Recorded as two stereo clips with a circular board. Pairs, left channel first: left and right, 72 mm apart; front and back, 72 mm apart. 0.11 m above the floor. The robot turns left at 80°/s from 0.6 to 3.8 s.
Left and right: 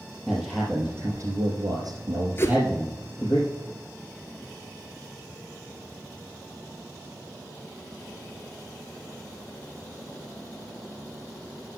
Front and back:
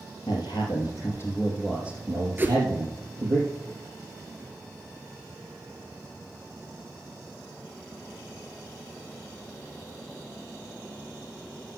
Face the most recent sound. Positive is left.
turn(degrees=20)